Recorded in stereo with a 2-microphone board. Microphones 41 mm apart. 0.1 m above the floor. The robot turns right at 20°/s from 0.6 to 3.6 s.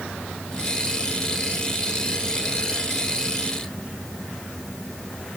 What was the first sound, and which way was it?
Only background noise.